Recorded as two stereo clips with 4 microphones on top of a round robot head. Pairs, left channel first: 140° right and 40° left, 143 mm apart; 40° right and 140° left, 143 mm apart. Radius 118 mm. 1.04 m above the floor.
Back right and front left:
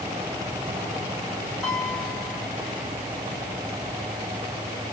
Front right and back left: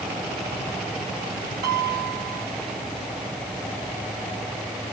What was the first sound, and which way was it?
A piano, 130° left.